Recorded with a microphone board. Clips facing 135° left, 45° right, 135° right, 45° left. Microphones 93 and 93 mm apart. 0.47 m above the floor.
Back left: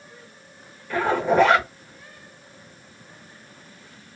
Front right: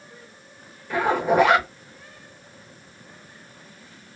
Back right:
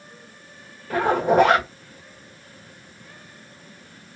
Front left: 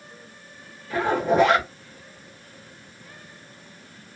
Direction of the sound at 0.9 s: 125° right.